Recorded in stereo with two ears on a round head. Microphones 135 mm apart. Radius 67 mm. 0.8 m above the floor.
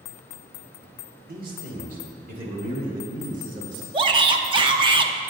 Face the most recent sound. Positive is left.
turn(degrees=-35)  # may be behind; listen again after turning